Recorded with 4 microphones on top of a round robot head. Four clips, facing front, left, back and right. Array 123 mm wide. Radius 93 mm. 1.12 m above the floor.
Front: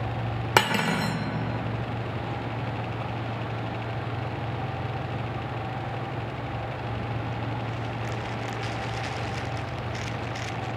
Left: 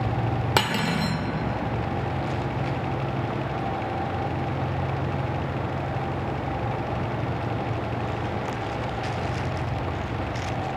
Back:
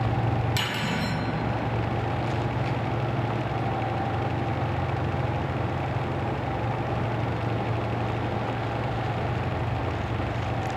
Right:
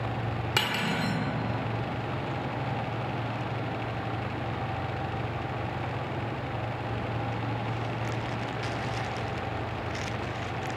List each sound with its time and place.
0.6 s cutlery clinking: 35° left, 0.8 m